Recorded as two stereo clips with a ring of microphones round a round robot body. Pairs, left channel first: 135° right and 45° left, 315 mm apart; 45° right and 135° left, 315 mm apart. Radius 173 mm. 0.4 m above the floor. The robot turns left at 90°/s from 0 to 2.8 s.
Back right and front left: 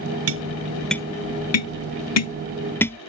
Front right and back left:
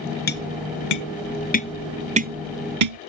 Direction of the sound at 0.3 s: 10° left.